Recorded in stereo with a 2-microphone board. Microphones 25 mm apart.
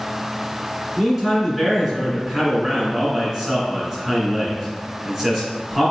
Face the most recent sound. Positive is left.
turn(degrees=-5)  # may be behind; listen again after turning